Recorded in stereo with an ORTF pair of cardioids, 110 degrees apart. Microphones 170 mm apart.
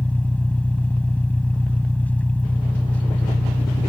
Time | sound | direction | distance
0.0 | an engine running | 10° left | ?